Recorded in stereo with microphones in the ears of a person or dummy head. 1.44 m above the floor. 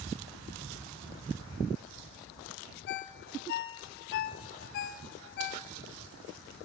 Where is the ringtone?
50° left (ahead or behind), 0.6 m.